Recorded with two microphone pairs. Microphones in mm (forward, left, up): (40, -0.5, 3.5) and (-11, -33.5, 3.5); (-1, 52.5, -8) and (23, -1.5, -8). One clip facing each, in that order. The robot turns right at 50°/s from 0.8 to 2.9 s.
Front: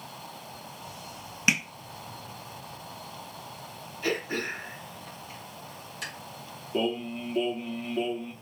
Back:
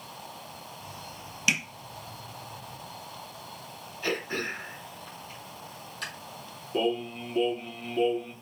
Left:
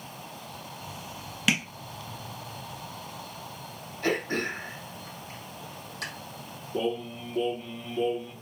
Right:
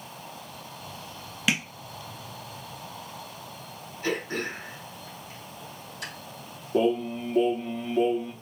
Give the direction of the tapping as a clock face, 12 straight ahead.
11 o'clock.